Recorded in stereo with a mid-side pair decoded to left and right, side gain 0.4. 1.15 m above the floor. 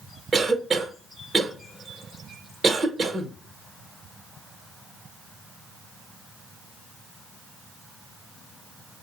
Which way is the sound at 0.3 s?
35° right.